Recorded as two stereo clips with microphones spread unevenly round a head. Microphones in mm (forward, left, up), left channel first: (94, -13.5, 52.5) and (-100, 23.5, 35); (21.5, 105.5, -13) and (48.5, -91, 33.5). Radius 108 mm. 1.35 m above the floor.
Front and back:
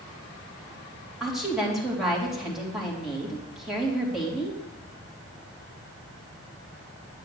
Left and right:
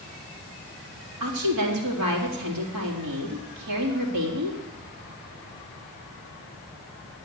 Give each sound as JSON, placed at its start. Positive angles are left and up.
{"t": 1.2, "sound": "a woman speaking", "azimuth_deg": -105, "distance_m": 3.5}